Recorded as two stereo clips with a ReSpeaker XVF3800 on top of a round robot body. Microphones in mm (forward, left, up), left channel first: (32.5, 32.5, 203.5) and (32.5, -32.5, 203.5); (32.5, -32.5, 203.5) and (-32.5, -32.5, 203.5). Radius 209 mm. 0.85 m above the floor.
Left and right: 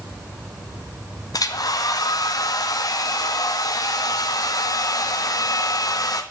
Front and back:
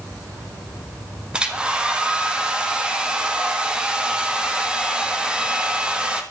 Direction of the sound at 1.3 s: 105° left.